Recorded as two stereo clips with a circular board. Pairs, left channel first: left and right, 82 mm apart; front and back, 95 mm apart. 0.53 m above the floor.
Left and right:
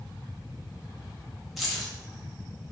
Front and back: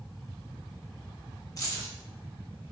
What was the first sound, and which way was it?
Keys jangling, straight ahead.